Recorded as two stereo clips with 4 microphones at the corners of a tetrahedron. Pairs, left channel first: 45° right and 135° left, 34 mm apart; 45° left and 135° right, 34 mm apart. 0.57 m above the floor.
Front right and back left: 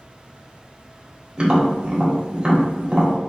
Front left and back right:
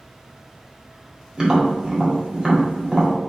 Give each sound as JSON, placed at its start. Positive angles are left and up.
{"t": 1.4, "sound": "tapping", "azimuth_deg": 165, "distance_m": 1.5}